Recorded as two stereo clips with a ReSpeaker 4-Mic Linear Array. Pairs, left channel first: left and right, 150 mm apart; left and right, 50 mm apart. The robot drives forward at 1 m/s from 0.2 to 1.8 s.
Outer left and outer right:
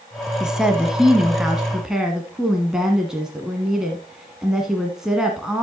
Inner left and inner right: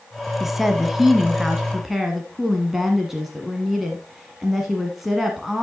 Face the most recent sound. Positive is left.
turn(degrees=-5)  # may be behind; listen again after turning